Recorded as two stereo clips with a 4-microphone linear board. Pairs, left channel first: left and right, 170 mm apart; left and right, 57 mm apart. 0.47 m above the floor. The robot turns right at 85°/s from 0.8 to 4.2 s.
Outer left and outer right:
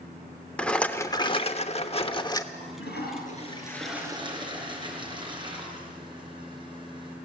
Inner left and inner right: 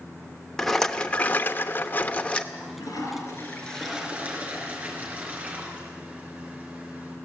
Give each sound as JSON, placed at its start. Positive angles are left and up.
{"t": 0.6, "sound": "a rattle", "azimuth_deg": 10, "distance_m": 1.1}
{"t": 2.5, "sound": "a toilet flushing", "azimuth_deg": 65, "distance_m": 4.0}